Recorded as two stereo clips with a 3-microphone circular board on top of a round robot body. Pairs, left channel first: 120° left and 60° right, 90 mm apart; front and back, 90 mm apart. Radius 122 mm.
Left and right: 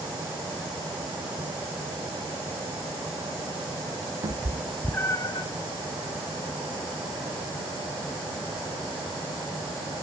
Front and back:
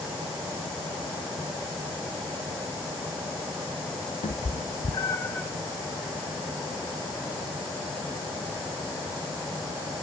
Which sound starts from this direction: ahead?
A cat meowing, at 4.2 s.